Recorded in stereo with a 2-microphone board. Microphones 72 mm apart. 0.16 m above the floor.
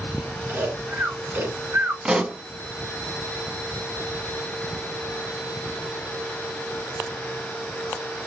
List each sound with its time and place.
0.5 s snoring: 30° right (ahead or behind), 1.8 m
2.0 s a pop: 15° right (ahead or behind), 0.7 m